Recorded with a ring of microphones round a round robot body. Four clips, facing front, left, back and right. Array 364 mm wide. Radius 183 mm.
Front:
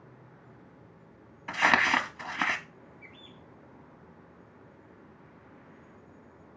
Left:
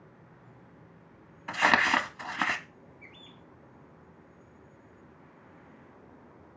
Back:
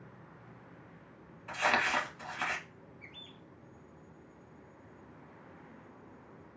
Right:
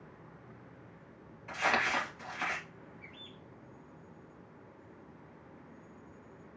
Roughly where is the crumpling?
Ahead left.